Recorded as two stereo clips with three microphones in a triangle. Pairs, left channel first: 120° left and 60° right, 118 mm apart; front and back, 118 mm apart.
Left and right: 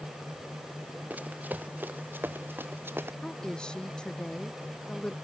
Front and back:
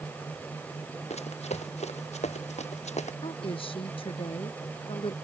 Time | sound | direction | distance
1.1 | running footsteps | 15° left | ?
3.2 | a woman speaking | 35° left | ?